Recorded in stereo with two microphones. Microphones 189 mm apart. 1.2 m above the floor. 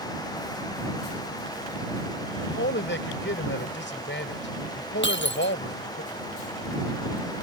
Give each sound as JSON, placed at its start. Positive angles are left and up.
{"t": 2.4, "sound": "a man speaking", "side_deg": 80}
{"t": 5.0, "sound": "breaking glass", "side_deg": 75}